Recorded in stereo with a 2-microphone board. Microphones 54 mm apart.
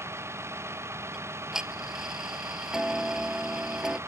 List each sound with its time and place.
0.0 s a vehicle: 55° right (ahead or behind)
1.1 s ticking: 10° right (ahead or behind)